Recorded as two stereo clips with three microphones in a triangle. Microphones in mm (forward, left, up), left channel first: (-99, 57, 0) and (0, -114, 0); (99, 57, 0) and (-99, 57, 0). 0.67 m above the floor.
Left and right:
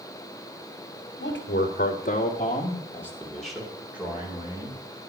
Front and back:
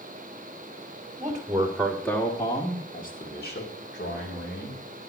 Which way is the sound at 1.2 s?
110° left.